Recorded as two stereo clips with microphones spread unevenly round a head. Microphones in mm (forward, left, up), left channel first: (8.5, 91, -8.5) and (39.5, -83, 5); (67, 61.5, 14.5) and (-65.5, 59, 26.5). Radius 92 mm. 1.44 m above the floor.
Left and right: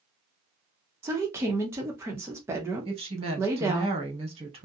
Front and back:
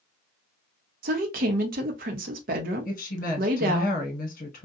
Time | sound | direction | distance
1.0 | a woman speaking | 155° right | 0.7 m
2.9 | a woman speaking | 20° right | 1.3 m